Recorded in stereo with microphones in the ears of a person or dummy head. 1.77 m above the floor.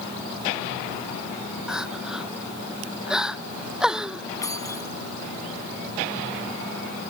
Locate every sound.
1.7 s crying: centre (ahead or behind)
4.4 s keys jangling: 20° left (ahead or behind)